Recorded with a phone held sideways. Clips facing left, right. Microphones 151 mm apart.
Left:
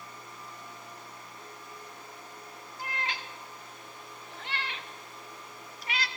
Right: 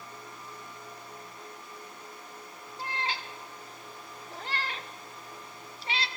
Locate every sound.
2.8 s a cat meowing: 30° right (ahead or behind), 1.8 m